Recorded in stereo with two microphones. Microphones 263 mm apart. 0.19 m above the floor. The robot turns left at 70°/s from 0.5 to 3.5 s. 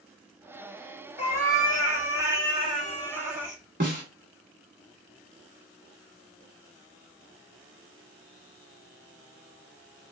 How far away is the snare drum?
About 1.0 m.